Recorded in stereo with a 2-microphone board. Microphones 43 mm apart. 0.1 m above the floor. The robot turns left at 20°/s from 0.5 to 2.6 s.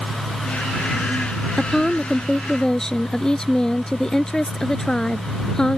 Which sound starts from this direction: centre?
A woman speaking, at 1.6 s.